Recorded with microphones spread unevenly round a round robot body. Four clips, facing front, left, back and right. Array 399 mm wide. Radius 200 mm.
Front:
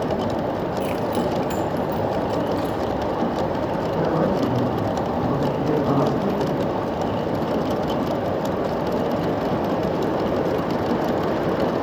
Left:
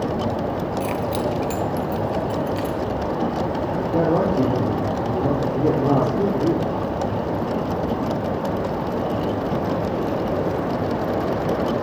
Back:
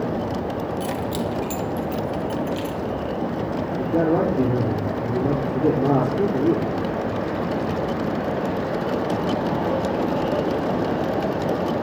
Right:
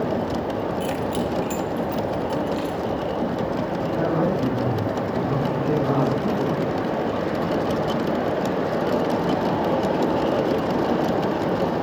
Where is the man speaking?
140° left, 9 m.